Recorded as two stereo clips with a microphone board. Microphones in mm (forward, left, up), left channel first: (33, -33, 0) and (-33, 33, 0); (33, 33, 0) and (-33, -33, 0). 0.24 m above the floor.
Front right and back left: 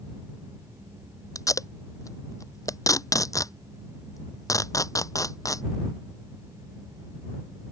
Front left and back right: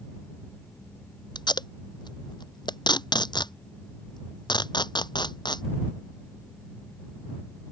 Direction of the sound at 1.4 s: 5° left.